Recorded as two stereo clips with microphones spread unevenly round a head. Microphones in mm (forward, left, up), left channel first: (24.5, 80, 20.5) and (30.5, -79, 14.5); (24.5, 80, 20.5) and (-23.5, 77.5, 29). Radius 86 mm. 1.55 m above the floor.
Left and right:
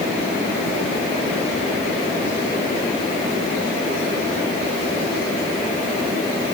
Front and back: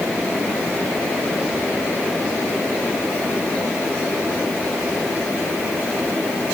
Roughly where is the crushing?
No crushing in this recording.